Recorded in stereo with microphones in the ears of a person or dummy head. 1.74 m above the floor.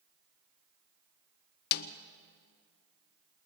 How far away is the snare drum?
About 0.7 m.